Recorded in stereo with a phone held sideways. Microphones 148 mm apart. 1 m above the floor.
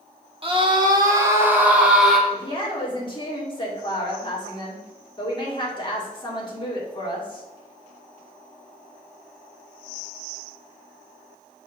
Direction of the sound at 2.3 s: 30° left (ahead or behind).